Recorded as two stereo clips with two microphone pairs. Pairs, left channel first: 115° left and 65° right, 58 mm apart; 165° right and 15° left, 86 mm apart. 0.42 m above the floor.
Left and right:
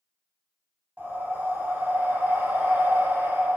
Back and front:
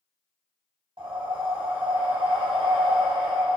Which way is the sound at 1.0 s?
5° right.